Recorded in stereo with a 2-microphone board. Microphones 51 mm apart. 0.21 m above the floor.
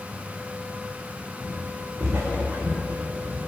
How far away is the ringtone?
I don't hear a ringtone.